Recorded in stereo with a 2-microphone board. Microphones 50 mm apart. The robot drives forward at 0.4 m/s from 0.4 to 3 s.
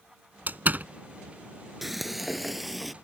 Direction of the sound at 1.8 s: 5° right (ahead or behind).